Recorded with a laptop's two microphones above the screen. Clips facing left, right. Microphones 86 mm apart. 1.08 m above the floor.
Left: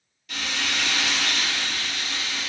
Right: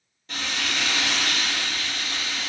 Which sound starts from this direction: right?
Frying, at 0.3 s.